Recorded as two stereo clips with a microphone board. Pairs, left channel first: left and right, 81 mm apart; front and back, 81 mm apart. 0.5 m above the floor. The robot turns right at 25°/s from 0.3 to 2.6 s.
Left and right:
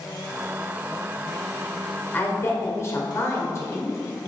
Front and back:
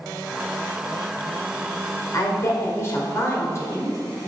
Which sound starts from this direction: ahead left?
A woman speaking, at 2.1 s.